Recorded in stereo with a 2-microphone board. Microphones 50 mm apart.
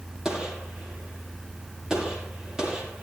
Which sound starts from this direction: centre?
A gunshot, at 0.2 s.